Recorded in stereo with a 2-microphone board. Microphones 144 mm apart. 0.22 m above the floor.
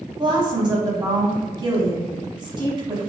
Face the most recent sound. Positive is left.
turn(degrees=-35)  # may be behind; listen again after turning